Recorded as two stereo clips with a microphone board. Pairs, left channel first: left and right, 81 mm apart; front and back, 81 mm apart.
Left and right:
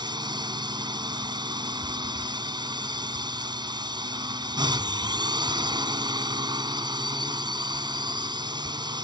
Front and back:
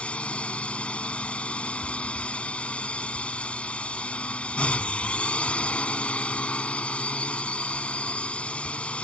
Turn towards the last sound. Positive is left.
turn(degrees=-75)